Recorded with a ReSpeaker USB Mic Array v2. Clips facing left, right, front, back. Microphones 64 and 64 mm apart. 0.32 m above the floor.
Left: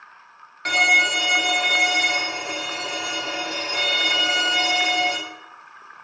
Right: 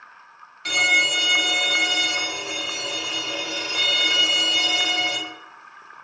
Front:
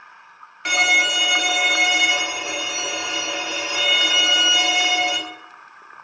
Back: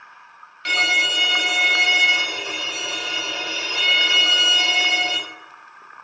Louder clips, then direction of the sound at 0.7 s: Left 2 dB, front 2 dB; 65° left.